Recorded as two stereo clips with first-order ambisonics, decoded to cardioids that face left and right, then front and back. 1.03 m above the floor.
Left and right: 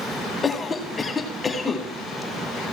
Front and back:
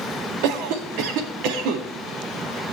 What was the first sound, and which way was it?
A cough, 165° left.